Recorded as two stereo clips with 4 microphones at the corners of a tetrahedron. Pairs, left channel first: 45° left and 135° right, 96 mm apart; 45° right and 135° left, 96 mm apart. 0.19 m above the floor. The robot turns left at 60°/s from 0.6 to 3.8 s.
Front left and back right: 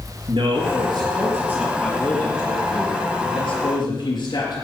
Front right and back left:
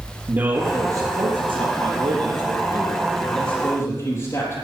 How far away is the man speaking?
About 3.5 m.